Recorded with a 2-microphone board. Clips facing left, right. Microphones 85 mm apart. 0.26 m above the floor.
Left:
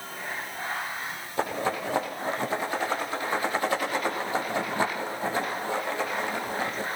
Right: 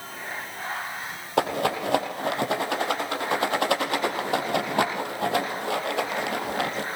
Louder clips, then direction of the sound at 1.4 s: Right 4 dB; 70° right (ahead or behind).